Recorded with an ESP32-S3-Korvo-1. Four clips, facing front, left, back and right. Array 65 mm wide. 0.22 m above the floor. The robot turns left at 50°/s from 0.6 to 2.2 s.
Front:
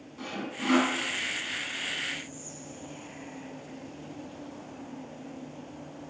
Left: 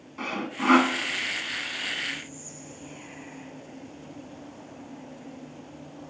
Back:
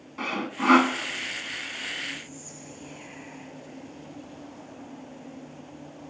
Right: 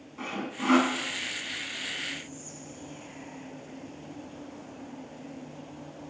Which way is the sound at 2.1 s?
140° left.